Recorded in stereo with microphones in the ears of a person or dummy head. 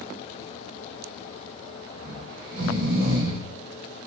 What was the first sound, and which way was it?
Snoring, 45° right (ahead or behind).